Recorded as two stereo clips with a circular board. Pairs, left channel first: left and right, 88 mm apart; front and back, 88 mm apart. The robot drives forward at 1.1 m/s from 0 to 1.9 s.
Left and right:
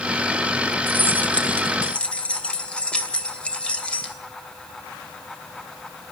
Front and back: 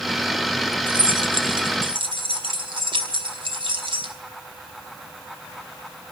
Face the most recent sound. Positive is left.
turn(degrees=170)